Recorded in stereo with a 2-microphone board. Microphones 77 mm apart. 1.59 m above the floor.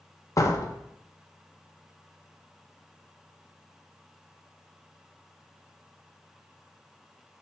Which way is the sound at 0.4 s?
45° left (ahead or behind).